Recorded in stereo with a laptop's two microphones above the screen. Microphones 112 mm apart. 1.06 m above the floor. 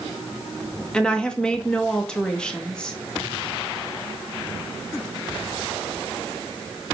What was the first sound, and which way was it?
A woman speaking, 5° left (ahead or behind).